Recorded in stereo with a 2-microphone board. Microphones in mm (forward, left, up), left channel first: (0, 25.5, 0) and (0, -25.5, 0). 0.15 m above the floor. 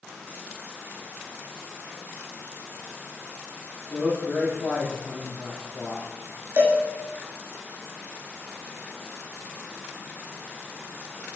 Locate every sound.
3.9 s a man speaking: 40° left (ahead or behind), 1.8 m
6.6 s a cowbell: 45° right (ahead or behind), 0.8 m